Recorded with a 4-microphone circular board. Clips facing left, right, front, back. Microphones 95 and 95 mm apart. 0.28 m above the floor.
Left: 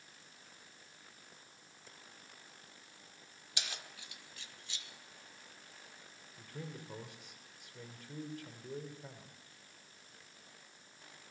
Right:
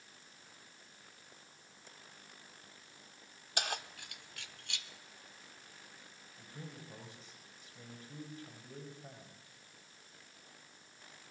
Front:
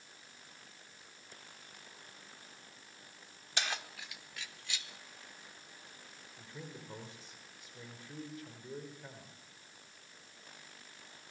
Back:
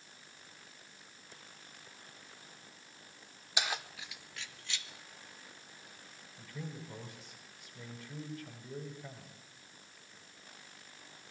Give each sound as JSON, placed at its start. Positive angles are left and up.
{"t": 3.6, "sound": "keys jangling", "azimuth_deg": -105, "distance_m": 1.1}
{"t": 6.4, "sound": "a man speaking", "azimuth_deg": 65, "distance_m": 6.0}